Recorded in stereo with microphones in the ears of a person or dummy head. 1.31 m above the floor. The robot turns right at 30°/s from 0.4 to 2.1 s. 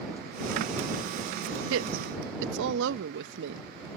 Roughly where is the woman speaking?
Right.